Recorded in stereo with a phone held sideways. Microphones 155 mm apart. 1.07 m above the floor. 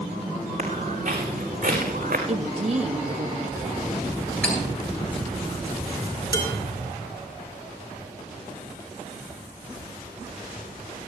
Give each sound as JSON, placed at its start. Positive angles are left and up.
{"t": 0.6, "sound": "footsteps", "side_deg": -45, "distance_m": 5.5}
{"t": 2.3, "sound": "a woman speaking", "side_deg": -40, "distance_m": 1.4}
{"t": 4.4, "sound": "cutlery clinking", "side_deg": -10, "distance_m": 10.0}
{"t": 6.3, "sound": "dishes clattering", "side_deg": 75, "distance_m": 5.5}